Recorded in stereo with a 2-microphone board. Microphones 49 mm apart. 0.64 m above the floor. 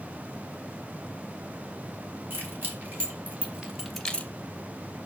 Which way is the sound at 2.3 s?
45° right (ahead or behind).